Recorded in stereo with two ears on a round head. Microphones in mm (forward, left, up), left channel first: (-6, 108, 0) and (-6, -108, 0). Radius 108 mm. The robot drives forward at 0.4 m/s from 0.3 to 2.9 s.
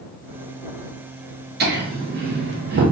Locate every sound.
1.6 s laughter: 45° right (ahead or behind), 0.8 m